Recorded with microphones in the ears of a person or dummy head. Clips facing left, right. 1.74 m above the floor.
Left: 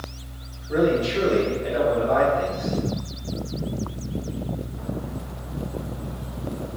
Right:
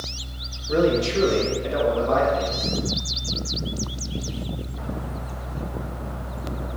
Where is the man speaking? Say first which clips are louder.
Right 1 dB; 80° right, 1.7 m; by 2.7 s 85° right, 3 m.